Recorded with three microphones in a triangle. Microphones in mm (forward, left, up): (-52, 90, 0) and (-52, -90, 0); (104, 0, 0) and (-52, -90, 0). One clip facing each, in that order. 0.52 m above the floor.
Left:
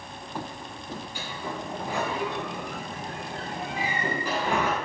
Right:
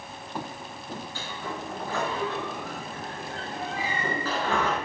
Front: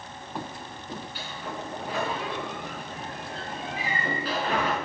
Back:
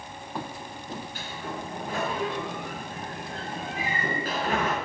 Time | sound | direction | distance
1.1 | a sliding door | 165° left | 4.5 m